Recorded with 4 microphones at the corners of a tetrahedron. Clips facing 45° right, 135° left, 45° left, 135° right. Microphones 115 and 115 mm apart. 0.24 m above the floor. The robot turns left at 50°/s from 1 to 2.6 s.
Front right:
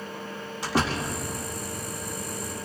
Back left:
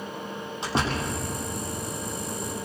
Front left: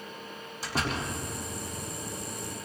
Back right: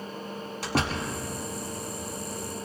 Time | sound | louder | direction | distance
0.6 | a door slam | front right 1 dB, back right 3 dB | 160° right | 5.5 m